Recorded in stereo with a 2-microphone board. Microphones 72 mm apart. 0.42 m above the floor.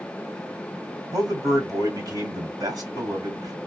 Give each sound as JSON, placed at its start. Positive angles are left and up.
{"t": 1.1, "sound": "a man speaking", "side_deg": -55, "distance_m": 2.0}